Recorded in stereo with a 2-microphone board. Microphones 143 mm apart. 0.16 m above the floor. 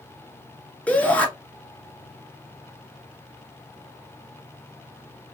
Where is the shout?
10° left (ahead or behind), 1.8 m.